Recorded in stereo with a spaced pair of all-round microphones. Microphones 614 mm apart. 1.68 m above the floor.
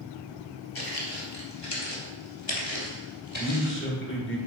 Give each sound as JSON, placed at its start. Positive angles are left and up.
{"t": 0.8, "sound": "footsteps", "side_deg": 40, "distance_m": 2.5}
{"t": 3.4, "sound": "a man speaking", "side_deg": 20, "distance_m": 3.0}